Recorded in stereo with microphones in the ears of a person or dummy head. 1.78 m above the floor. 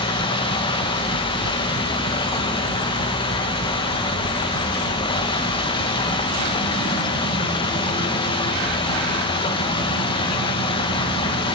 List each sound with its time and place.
0.0 s running water: 30° left (ahead or behind), 1.5 m